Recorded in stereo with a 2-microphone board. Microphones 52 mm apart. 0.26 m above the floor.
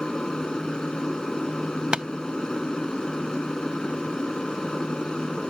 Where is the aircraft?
15° left (ahead or behind).